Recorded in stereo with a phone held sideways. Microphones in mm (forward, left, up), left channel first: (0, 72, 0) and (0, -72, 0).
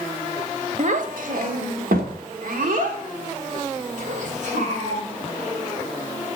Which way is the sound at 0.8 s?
55° right (ahead or behind).